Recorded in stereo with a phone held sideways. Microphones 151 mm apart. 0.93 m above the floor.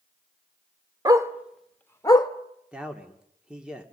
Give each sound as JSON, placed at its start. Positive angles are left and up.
{"t": 1.1, "sound": "a dog barking", "side_deg": -25, "distance_m": 1.0}
{"t": 2.7, "sound": "a man speaking", "side_deg": -5, "distance_m": 2.0}